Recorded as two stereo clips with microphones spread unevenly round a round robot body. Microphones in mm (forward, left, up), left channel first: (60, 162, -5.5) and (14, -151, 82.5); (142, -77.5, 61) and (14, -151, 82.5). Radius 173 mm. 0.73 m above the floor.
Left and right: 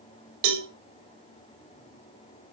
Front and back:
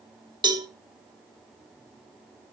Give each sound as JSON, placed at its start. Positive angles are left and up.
{"t": 0.4, "sound": "a cowbell", "azimuth_deg": -90, "distance_m": 3.0}